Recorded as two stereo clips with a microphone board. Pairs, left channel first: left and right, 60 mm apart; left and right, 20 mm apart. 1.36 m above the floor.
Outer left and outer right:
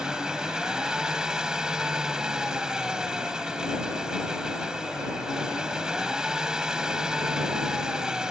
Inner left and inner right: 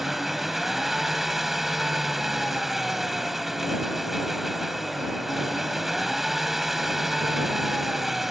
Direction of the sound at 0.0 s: 10° right (ahead or behind).